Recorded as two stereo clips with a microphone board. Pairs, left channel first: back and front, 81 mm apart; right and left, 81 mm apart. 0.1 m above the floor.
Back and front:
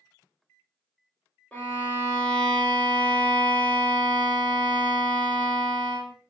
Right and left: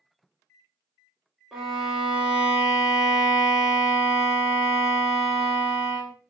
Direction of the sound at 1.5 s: 160° left.